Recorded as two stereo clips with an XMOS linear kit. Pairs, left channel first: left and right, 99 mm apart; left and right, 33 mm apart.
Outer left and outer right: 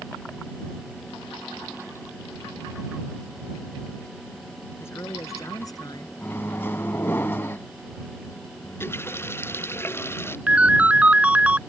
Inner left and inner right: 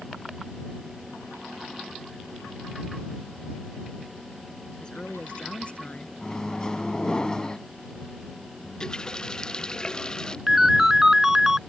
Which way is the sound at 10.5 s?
15° right (ahead or behind).